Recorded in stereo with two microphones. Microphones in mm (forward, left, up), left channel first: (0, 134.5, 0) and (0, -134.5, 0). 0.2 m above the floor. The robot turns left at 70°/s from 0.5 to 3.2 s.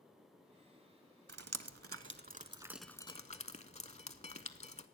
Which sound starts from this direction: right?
Dripping, at 1.3 s.